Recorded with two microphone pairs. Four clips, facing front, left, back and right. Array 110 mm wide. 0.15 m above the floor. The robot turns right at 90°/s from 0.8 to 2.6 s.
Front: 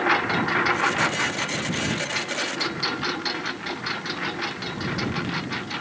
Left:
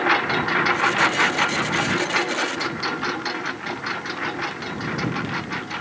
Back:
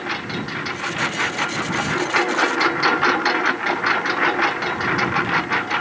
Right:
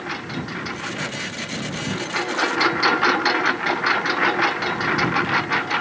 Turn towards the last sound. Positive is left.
turn(degrees=-140)